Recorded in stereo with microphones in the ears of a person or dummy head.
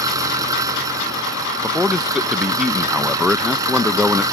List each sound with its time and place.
0.0 s an engine running: 15° right (ahead or behind)
1.6 s a man speaking: 5° right (ahead or behind)